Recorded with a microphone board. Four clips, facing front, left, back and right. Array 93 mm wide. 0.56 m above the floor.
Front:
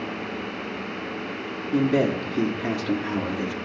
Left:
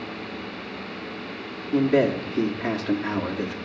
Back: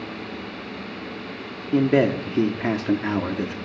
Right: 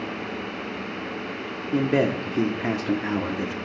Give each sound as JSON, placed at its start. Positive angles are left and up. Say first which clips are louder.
{"t": 1.7, "sound": "a man speaking", "louder": "left 2 dB, back 3 dB", "azimuth_deg": -160, "distance_m": 0.9}